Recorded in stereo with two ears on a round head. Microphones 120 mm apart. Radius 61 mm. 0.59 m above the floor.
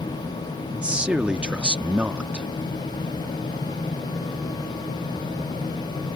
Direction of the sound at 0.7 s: 10° right (ahead or behind).